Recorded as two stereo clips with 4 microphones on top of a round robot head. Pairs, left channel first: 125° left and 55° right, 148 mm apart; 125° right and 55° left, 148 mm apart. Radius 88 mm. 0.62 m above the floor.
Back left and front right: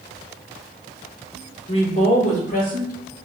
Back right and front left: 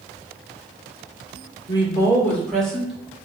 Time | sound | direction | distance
1.7 | a woman speaking | straight behind | 1.5 m